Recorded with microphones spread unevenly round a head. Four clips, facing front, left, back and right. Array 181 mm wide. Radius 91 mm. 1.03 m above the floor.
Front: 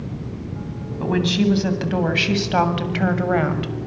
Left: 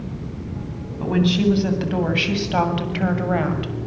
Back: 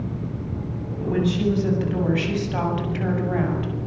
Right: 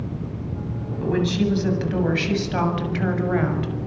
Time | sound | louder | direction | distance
1.0 | a woman speaking | left 3 dB, front 2 dB | 20° left | 9 m